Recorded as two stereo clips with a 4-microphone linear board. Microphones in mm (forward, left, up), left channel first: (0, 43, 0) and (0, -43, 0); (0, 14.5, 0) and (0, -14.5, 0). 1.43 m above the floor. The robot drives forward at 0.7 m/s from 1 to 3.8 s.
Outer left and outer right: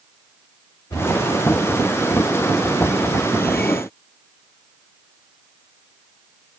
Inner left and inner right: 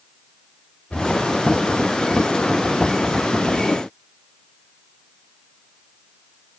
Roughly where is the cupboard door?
Left.